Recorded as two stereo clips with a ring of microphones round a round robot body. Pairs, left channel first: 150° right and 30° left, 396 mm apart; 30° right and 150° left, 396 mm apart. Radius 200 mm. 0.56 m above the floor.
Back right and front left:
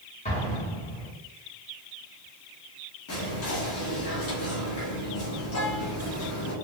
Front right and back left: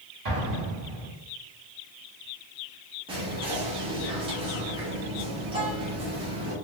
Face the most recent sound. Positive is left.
turn(degrees=-140)